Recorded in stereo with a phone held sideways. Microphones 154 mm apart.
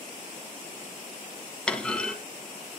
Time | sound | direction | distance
1.7 | a clunk | 5° left (ahead or behind) | 2 m